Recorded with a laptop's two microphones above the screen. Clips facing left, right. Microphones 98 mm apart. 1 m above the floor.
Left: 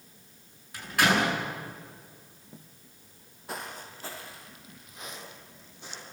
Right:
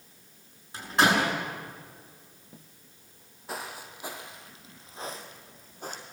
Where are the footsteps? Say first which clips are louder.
Right 1 dB; centre (ahead or behind), 2.0 m; by 6.0 s 50° right (ahead or behind), 3 m.